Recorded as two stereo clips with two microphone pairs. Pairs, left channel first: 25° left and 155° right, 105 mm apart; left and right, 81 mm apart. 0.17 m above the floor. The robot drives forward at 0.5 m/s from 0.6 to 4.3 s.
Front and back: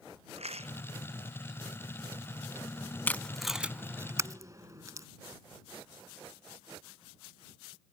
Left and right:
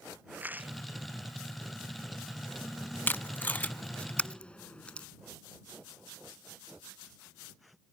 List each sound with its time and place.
0.3 s a rattle: 160° right
3.1 s tape being pulled: 70° left; by 5.1 s 160° left